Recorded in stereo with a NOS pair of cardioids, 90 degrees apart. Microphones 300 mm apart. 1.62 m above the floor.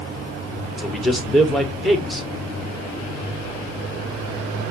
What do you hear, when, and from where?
0.8 s a man speaking: straight ahead, 1.4 m